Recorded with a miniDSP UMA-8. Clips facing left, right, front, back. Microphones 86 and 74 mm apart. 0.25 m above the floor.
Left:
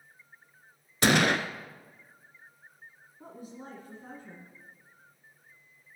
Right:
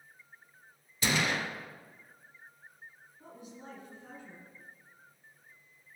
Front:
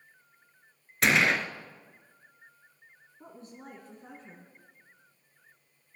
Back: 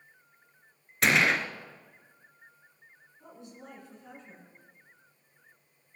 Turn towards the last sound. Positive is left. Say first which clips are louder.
# left 4 dB, front 1 dB
turn(degrees=45)